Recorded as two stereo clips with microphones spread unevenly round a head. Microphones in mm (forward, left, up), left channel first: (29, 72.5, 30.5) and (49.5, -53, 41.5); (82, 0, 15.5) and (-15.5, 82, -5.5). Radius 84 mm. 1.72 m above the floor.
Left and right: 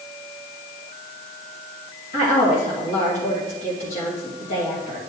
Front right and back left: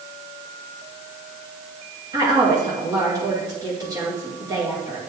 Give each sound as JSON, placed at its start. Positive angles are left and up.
{"t": 2.1, "sound": "a woman speaking", "azimuth_deg": 80, "distance_m": 2.5}